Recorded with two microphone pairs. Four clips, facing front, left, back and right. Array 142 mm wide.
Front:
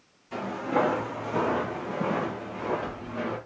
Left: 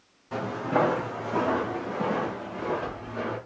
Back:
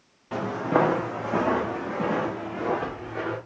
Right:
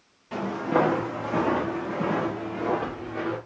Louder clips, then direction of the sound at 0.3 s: Right 2 dB, back 3 dB; 170° right.